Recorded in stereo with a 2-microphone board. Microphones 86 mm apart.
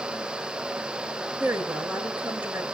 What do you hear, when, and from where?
1.4 s a woman speaking: 20° right (ahead or behind), 6.5 m